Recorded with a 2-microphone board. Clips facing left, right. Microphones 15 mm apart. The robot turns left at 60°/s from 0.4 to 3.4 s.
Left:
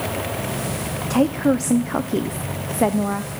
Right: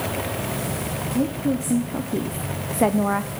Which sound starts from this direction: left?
A woman speaking, at 1.1 s.